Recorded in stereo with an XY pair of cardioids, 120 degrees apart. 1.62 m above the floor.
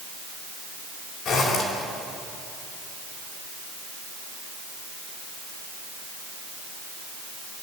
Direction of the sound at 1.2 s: 60° left.